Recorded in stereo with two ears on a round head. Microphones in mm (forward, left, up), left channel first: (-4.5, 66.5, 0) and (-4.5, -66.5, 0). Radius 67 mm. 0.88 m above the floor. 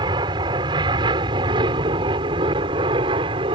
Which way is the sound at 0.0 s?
35° right (ahead or behind).